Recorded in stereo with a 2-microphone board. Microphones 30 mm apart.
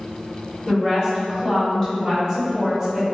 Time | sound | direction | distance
0.7 | a woman speaking | 30° left (ahead or behind) | 1.8 m